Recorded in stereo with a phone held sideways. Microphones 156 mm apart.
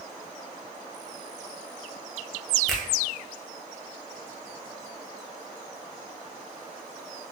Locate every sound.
2.7 s a finger snap: centre (ahead or behind), 0.5 m